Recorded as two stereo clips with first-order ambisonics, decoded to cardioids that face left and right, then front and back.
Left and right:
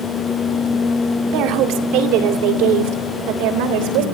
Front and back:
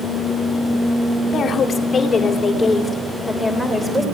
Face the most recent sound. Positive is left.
turn(degrees=-90)